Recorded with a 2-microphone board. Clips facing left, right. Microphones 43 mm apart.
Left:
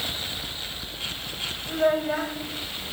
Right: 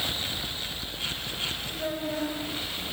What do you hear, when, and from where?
1.7 s a child speaking: 50° left (ahead or behind), 2 m